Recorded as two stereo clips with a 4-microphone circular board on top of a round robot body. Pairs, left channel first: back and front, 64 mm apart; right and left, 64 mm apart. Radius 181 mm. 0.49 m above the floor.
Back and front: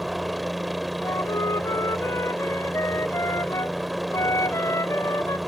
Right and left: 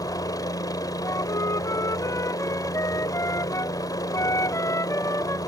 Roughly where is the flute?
Behind right.